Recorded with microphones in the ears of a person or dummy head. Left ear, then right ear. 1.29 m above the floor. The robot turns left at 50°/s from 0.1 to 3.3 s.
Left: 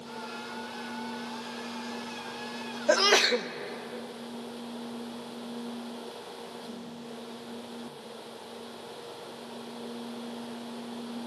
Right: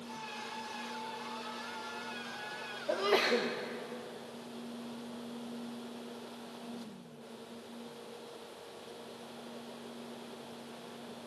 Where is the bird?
I don't hear a bird.